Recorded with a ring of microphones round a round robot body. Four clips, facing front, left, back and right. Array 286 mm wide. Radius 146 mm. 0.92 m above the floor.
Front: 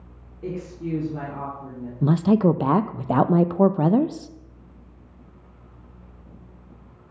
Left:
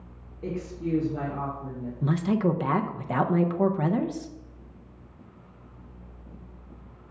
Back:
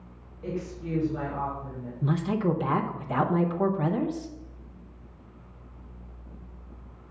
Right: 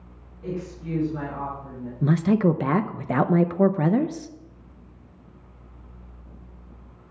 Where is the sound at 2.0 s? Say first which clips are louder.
Right 5 dB, front 8 dB; 25° right, 0.5 m.